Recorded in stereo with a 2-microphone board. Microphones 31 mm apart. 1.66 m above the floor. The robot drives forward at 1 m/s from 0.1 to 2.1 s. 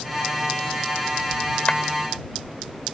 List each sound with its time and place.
1.7 s a clap: 40° left (ahead or behind)